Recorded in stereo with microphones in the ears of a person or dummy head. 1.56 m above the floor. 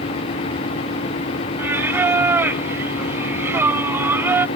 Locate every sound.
1.6 s singing: 15° right (ahead or behind)